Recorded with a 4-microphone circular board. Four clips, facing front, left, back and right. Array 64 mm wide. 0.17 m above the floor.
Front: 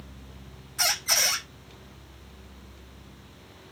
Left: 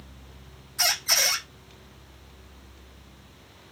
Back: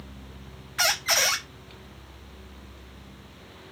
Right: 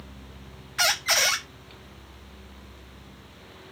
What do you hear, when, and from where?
0.8 s a squeak: 135° right, 0.6 m